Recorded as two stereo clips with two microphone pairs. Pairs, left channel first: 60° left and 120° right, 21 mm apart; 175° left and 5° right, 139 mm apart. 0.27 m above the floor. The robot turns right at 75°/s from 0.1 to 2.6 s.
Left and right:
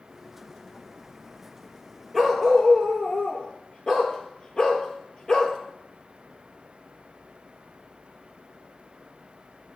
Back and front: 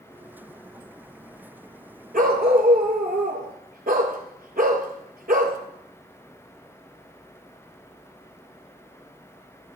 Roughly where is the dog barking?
Ahead right.